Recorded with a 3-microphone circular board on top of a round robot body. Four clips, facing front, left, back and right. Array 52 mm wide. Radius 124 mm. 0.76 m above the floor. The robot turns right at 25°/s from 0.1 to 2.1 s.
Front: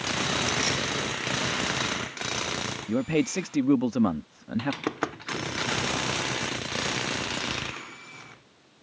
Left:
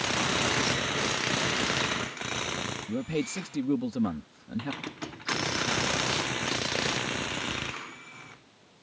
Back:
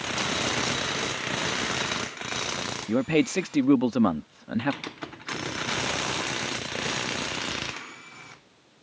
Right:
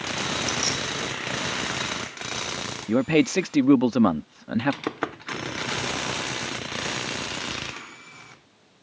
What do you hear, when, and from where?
0.5 s keys jangling: 10° right; by 0.9 s straight ahead
2.9 s a man speaking: 105° right
4.9 s knocking: 55° right